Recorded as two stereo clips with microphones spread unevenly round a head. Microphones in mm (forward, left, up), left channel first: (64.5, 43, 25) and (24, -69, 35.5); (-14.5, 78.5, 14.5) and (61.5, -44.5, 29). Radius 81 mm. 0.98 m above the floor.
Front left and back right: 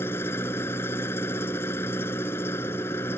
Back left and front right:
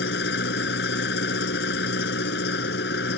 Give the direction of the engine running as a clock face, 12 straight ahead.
7 o'clock.